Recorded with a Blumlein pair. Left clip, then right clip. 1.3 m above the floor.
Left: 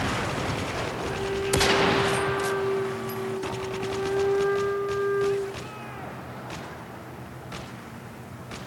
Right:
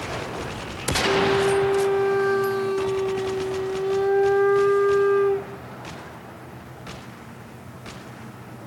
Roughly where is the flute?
Ahead right.